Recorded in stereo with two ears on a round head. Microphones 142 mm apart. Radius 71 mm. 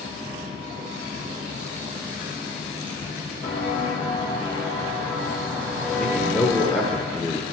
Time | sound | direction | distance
3.4 | footsteps | 35° left (ahead or behind) | 1.6 m
6.0 | a man speaking | 10° left (ahead or behind) | 0.8 m